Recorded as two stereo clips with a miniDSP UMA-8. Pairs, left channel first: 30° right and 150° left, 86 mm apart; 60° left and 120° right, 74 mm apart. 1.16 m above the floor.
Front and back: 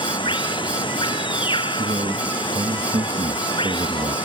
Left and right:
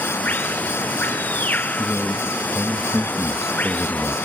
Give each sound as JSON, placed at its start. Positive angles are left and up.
{"t": 0.0, "sound": "running water", "azimuth_deg": -10}
{"t": 1.8, "sound": "a man speaking", "azimuth_deg": 155}